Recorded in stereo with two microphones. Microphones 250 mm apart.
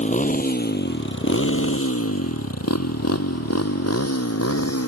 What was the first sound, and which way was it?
A motorcycle, 30° left (ahead or behind).